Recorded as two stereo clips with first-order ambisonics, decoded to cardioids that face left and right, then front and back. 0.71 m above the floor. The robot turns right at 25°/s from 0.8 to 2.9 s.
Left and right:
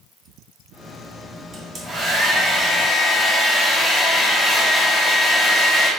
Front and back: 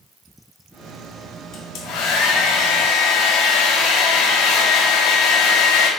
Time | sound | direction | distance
1.5 | a hair dryer | 30° right | 0.7 m